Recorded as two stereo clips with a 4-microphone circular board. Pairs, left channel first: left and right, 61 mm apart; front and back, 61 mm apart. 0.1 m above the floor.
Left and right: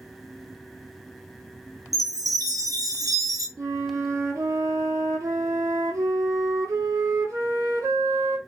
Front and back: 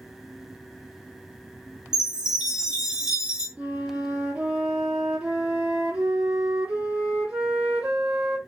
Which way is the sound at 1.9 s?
105° right.